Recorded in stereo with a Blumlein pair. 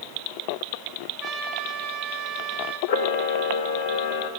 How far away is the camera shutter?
About 2.5 m.